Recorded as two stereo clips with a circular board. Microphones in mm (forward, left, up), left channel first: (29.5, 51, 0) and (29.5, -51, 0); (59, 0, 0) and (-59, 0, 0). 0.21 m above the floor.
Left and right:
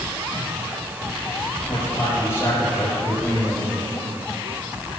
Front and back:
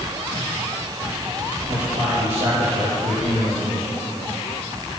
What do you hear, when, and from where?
1.7 s a man speaking: 140° left, 6 m; by 4.0 s 165° left, 5.5 m